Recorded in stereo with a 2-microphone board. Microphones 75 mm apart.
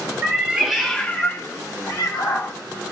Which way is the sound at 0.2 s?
20° right (ahead or behind).